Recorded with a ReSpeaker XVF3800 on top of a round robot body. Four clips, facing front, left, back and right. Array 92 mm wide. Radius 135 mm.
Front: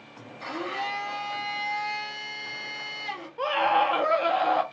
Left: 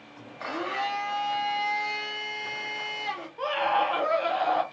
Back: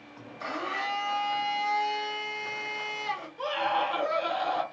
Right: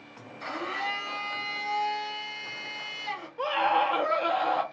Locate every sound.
0.4 s a blender: 110° left, 0.8 m
3.4 s a scream: 5° right, 0.7 m